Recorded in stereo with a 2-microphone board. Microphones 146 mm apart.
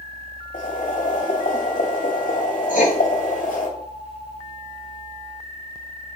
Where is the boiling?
75° left (ahead or behind), 2.5 m.